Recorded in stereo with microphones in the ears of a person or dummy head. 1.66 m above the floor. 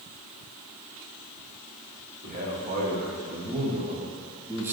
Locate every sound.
2.2 s a man speaking: 40° right (ahead or behind), 2 m; by 4.8 s 10° right (ahead or behind), 1.2 m